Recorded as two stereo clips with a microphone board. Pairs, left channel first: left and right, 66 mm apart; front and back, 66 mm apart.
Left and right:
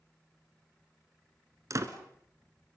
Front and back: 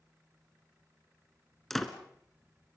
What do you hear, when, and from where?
1.7 s a door slam: 85° right, 1.7 m